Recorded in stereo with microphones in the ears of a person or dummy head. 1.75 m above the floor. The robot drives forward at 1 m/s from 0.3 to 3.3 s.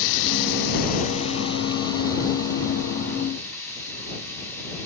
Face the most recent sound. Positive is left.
turn(degrees=15)  # may be behind; listen again after turning